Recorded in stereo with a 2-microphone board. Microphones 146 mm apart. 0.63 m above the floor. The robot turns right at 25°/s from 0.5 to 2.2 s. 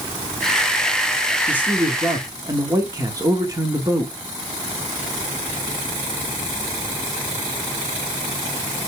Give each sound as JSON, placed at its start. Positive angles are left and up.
{"t": 1.5, "sound": "a man speaking", "side_deg": -10, "distance_m": 1.5}